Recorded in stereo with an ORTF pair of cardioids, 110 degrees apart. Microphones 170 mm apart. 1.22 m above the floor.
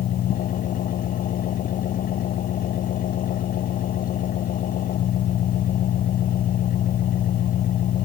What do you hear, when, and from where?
0.0 s an engine running: 55° left